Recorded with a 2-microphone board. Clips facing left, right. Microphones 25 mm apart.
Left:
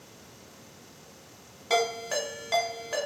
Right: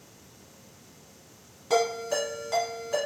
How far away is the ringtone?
About 1.0 m.